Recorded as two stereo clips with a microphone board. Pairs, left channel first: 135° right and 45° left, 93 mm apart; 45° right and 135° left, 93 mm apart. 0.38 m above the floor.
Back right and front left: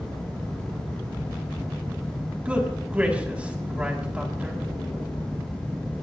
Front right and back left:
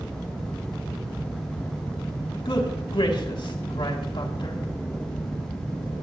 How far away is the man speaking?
About 2.5 m.